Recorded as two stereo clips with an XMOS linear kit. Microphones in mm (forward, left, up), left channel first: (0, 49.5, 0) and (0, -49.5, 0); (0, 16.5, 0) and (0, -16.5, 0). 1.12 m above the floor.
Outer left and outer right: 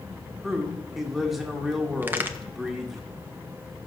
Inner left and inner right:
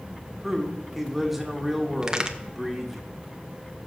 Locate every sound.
0.4 s a man speaking: 5° right (ahead or behind), 2 m
2.0 s a crack: 20° right (ahead or behind), 0.8 m